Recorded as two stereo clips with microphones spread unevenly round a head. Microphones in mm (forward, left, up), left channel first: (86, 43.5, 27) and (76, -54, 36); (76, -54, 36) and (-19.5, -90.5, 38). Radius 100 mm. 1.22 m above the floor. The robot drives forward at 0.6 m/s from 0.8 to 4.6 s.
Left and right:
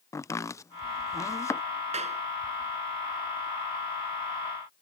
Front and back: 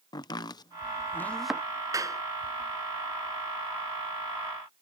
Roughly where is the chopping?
Ahead left.